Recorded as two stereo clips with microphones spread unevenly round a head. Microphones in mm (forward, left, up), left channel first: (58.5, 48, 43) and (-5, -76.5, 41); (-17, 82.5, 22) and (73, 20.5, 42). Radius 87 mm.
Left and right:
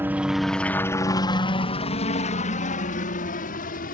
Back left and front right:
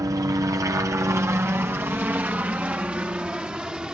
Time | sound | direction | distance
0.0 | a helicopter | 65° right | ?